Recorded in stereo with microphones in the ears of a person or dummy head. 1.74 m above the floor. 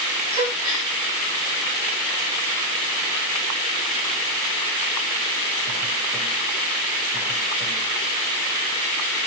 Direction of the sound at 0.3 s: 35° right (ahead or behind).